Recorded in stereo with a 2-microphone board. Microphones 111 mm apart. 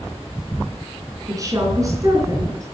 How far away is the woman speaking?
About 3.5 m.